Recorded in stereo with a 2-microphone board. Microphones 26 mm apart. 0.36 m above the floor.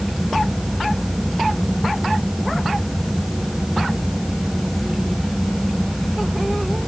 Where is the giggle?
No giggle in this recording.